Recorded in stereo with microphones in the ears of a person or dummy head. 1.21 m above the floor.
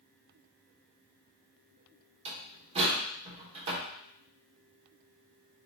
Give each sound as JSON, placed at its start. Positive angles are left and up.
{"t": 2.2, "sound": "a door slam", "side_deg": -30, "distance_m": 2.5}